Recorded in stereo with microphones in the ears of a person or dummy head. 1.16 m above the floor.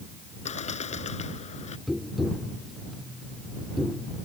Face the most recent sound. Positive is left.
turn(degrees=-5)  # may be behind; listen again after turning